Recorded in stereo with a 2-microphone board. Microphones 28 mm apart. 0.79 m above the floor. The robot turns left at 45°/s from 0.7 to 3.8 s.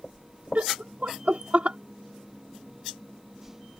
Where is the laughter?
65° right (ahead or behind); by 1.8 s 45° right (ahead or behind).